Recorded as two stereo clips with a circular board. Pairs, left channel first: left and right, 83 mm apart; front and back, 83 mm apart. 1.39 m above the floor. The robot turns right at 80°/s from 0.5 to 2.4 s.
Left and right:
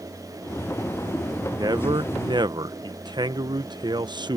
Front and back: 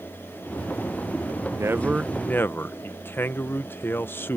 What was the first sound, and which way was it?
A man speaking, 135° right.